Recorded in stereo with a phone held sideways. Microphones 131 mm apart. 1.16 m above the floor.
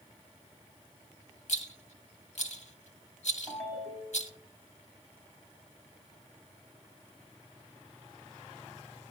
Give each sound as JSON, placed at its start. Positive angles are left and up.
{"t": 1.5, "sound": "a rattle", "side_deg": 60, "distance_m": 1.5}
{"t": 3.5, "sound": "a ringtone", "side_deg": -10, "distance_m": 6.5}